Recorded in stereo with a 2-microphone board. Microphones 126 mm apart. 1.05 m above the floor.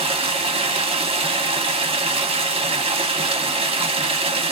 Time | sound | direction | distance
0.0 | running water | 50° right (ahead or behind) | 0.8 m